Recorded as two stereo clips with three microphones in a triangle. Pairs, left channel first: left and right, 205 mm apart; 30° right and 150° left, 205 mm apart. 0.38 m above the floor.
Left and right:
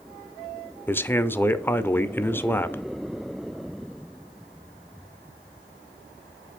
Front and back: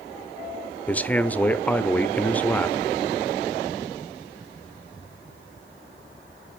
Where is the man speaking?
35° left, 0.8 m.